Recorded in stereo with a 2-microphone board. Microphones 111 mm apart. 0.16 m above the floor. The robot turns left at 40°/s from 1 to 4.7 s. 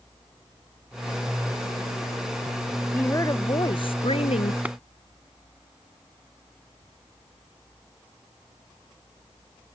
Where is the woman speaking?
160° left; by 4.5 s 95° left.